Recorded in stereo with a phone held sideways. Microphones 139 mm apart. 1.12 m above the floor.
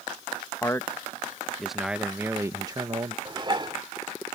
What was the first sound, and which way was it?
A man speaking, 20° left (ahead or behind).